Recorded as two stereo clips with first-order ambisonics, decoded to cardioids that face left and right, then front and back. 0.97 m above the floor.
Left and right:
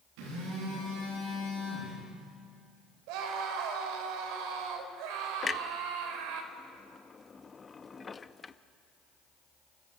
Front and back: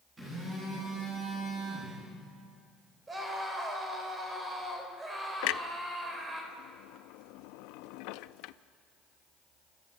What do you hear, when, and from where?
0.2 s a phone buzzing: 100° right, 9.5 m
3.1 s a scream: 105° right, 4 m
5.4 s a clunk: 15° left, 0.5 m